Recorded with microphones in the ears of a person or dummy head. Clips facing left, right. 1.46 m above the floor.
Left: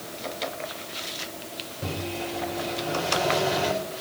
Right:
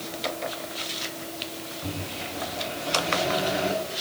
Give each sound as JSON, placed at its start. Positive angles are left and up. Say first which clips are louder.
{"t": 1.8, "sound": "a microwave", "louder": "left 5 dB", "side_deg": 75, "distance_m": 5.0}